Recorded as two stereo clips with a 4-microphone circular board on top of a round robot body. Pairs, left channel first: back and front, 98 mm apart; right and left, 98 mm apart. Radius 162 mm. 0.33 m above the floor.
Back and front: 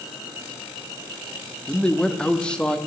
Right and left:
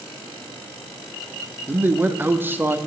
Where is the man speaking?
115° left, 0.9 m.